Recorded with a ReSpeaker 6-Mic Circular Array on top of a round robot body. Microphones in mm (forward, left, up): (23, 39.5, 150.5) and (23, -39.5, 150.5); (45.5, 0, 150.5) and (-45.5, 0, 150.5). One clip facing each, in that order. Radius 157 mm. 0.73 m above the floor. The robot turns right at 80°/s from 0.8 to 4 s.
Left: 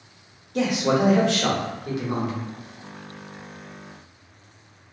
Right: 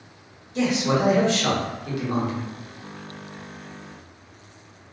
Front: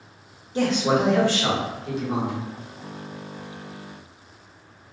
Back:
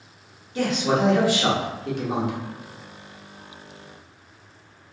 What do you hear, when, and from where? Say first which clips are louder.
0.6 s a man speaking: left 1 dB, front 1 dB; 60° left, 1.0 m; by 2.4 s 175° right, 1.0 m